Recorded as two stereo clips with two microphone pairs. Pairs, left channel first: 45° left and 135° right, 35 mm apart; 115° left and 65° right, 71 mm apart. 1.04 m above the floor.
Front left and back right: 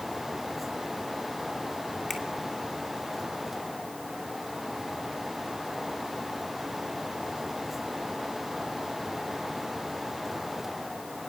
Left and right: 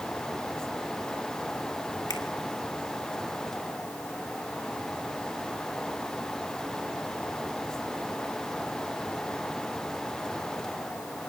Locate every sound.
2.1 s a finger snap: 130° left, 2.5 m